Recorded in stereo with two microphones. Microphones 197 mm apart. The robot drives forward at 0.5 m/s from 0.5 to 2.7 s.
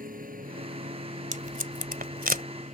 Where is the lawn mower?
45° right (ahead or behind); by 2.7 s 40° right (ahead or behind).